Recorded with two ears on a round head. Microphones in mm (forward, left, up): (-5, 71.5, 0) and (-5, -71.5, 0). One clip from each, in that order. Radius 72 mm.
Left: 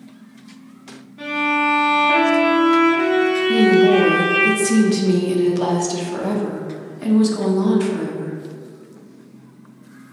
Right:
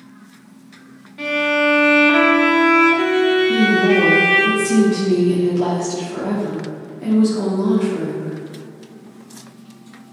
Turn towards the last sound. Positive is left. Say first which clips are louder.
# left 1 dB
turn(degrees=40)  # may be behind; listen again after turning